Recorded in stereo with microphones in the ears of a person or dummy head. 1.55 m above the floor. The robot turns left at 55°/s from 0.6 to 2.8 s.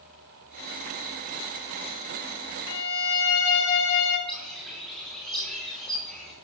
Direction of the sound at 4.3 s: Centre (ahead or behind).